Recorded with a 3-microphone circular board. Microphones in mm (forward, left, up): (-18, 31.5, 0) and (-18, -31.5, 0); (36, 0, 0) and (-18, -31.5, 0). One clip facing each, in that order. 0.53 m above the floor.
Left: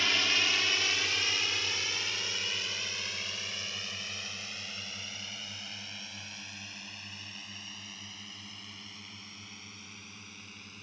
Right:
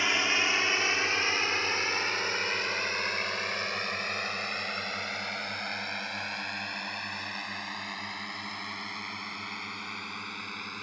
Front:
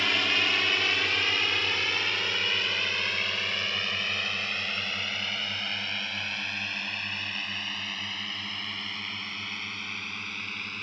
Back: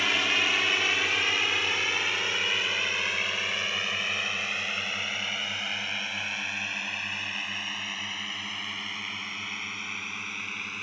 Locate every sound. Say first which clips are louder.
0.0 s a drone: right 3 dB, even; 75° right; by 10.8 s 70° right